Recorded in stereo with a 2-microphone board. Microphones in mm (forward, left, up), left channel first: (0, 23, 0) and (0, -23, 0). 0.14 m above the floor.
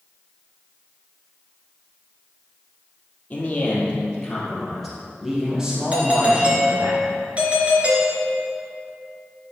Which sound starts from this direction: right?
A doorbell, at 5.9 s.